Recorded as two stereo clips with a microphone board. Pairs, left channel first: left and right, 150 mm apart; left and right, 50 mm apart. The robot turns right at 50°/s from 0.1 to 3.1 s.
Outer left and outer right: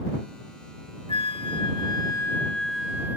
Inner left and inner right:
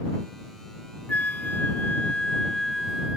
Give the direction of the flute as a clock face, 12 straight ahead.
9 o'clock.